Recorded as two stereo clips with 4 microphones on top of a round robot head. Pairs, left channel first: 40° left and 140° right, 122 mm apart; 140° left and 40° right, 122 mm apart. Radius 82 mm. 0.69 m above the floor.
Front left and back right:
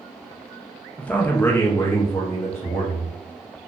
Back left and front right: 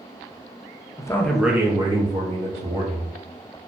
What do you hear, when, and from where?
1.0 s a man speaking: 110° left, 0.5 m; by 3.1 s 35° right, 1.2 m